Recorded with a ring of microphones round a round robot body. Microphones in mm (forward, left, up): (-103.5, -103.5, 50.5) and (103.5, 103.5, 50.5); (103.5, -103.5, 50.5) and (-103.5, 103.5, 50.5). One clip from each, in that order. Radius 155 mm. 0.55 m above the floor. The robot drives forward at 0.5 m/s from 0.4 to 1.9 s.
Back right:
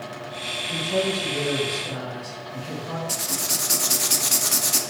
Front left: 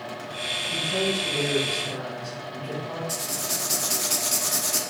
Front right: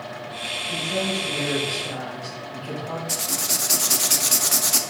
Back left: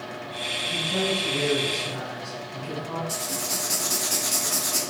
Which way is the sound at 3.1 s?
70° right.